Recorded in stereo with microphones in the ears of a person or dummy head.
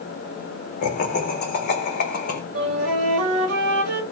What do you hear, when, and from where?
0.8 s laughter: 50° left (ahead or behind), 0.9 m
2.5 s a flute: 65° right (ahead or behind), 1.0 m